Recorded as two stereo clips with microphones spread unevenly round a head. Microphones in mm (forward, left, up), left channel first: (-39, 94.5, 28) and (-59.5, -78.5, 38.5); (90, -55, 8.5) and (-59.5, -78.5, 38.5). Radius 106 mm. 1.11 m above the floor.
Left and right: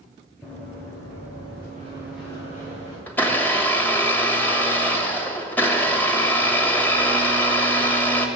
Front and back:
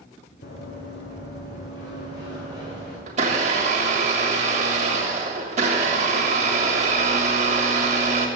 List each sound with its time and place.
0.4 s running footsteps: straight ahead, 2.5 m; by 3.0 s 20° left, 4 m
3.1 s a blender: 165° left, 1.2 m